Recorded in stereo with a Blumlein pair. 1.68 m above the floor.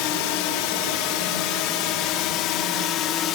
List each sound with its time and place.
0.0 s a drone: 45° left; by 3.4 s 35° left